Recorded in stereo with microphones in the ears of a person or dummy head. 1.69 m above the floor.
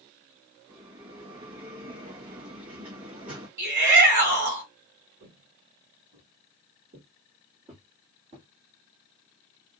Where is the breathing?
I don't hear breathing.